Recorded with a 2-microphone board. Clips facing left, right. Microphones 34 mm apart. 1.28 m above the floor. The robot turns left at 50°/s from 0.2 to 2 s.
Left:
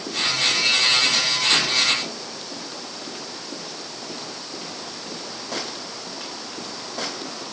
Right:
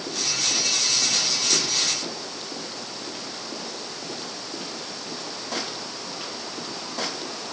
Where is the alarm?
I don't hear an alarm.